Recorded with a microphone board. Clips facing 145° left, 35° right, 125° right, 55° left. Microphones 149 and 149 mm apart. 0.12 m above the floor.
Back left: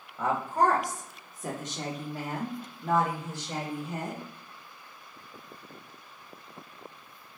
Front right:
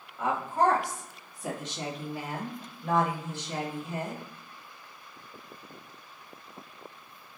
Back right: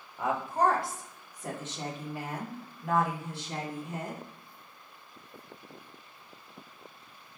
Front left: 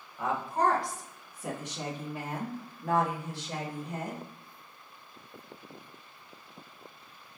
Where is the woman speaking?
175° left, 1.5 m; by 4.2 s 100° left, 3 m.